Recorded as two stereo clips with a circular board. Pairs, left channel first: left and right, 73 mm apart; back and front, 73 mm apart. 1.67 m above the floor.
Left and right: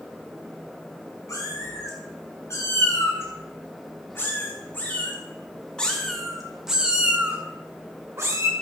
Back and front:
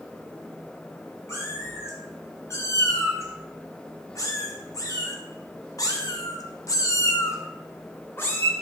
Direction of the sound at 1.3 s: 125° left.